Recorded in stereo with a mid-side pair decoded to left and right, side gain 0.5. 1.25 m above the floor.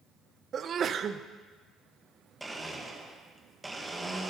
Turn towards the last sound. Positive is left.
turn(degrees=-10)